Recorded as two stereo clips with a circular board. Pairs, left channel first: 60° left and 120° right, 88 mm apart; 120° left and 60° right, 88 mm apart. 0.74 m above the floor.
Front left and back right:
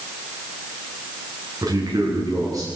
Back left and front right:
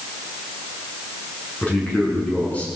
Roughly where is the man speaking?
Behind.